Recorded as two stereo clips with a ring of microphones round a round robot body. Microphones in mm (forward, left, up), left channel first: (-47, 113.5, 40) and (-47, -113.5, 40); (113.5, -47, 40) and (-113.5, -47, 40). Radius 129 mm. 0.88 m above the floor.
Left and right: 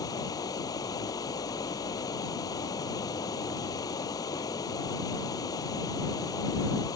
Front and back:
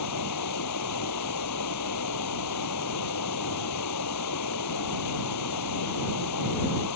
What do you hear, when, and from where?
0.0 s running water: 15° left